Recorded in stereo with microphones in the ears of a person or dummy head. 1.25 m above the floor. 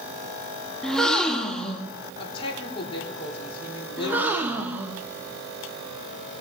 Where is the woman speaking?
30° left (ahead or behind), 4 m.